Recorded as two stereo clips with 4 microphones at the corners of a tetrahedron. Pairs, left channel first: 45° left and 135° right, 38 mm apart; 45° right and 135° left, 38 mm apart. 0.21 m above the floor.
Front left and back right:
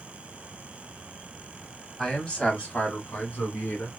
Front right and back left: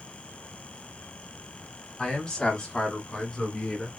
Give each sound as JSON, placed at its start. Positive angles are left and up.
{"t": 2.0, "sound": "a man speaking", "azimuth_deg": -5, "distance_m": 1.2}